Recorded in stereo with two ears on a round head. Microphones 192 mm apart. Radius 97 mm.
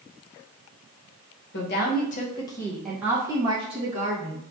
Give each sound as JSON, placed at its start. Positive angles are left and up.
{"t": 1.5, "sound": "a woman speaking", "side_deg": 55, "distance_m": 0.8}